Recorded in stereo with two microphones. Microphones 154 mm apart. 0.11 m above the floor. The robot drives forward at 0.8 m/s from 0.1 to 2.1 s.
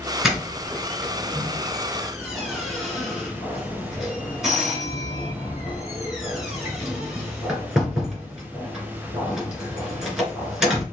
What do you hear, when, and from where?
0.2 s a doorbell: 5° right (ahead or behind), 1.6 m